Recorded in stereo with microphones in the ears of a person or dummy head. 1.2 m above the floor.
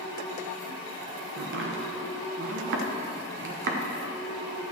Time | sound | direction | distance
1.4 | chopping | 55° right (ahead or behind) | 0.9 m